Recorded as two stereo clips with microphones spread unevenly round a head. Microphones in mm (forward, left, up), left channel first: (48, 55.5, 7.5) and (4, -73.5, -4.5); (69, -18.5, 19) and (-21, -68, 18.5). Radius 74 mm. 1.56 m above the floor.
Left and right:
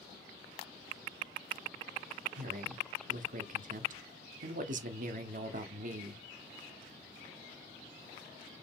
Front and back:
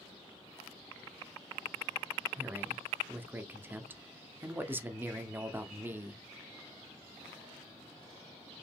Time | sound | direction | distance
2.4 | a man speaking | 80° right | 0.9 m